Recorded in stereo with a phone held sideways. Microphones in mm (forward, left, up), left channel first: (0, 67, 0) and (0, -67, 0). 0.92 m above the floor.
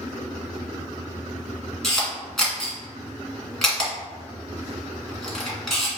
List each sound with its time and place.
1.8 s a camera shutter: 5° left (ahead or behind), 1.8 m